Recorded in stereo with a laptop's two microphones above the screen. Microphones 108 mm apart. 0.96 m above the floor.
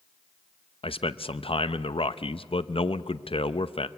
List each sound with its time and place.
0.8 s a man speaking: 55° left (ahead or behind), 0.7 m